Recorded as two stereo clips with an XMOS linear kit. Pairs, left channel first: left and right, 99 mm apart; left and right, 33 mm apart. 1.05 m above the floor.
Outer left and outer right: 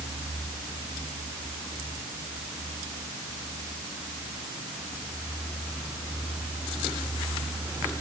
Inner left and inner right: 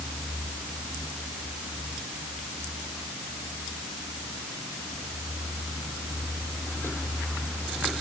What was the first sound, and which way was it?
Only background noise.